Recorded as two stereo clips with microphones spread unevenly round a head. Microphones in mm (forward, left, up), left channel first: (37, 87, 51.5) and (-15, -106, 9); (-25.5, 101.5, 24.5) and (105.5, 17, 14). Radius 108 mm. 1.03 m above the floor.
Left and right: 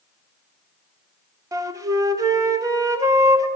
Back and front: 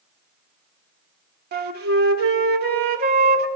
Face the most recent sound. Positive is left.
turn(degrees=-25)